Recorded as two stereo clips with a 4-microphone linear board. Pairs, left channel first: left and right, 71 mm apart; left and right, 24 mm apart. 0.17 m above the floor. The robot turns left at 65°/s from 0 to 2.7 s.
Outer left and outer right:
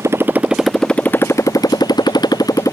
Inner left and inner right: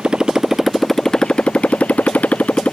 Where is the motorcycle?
135° right; by 2.7 s 50° left.